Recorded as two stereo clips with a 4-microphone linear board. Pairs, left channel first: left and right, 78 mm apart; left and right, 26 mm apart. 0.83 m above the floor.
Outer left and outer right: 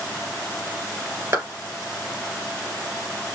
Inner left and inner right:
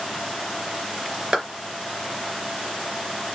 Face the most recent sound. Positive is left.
turn(degrees=-40)  # may be behind; listen again after turning